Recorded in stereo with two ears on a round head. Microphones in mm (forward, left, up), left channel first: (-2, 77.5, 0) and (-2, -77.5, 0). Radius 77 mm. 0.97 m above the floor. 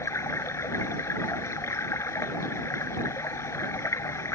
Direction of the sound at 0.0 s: 15° left (ahead or behind).